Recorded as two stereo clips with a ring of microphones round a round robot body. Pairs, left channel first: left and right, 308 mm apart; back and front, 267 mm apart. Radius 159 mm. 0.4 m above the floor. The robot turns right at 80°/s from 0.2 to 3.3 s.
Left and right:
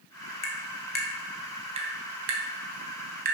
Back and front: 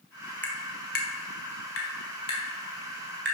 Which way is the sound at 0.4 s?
95° left.